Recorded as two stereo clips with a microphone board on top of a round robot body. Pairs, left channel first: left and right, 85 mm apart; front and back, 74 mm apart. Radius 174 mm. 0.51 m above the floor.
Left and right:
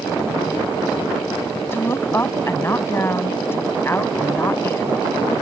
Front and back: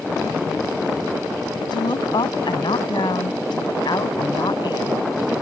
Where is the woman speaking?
25° left.